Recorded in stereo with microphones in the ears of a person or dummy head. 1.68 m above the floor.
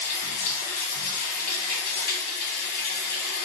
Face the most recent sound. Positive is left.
turn(degrees=45)  # may be behind; listen again after turning